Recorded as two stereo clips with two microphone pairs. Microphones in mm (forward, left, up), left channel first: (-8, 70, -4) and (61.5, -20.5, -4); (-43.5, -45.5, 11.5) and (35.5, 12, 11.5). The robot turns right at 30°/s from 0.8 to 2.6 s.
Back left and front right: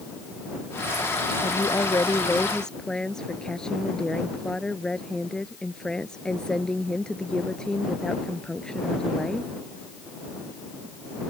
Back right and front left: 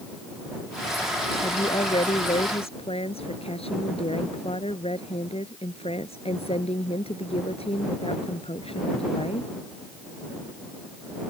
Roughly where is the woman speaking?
Behind.